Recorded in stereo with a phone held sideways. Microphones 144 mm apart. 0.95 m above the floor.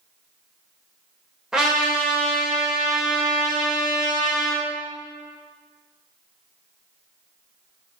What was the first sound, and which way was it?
A trumpet, 5° right (ahead or behind).